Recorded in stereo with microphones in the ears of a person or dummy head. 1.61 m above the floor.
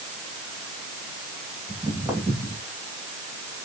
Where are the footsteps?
5° right (ahead or behind), 3 m.